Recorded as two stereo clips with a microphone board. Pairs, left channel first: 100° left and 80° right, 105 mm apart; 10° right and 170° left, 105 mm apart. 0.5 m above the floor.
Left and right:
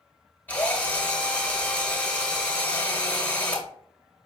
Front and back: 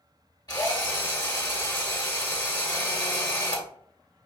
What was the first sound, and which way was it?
A drill, 30° left.